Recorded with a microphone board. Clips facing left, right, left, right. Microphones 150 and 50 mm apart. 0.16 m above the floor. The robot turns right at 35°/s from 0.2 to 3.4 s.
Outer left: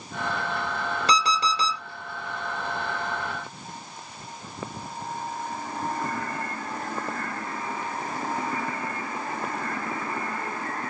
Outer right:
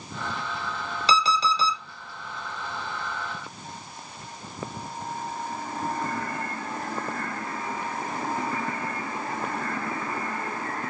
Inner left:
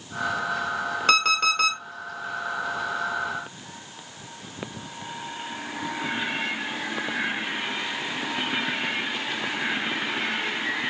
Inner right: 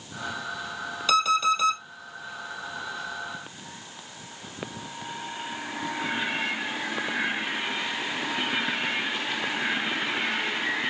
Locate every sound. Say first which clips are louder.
1.1 s an alarm clock: outer right 2 dB, even; 50° left (ahead or behind), 1.6 m; by 1.8 s 60° left (ahead or behind), 1.6 m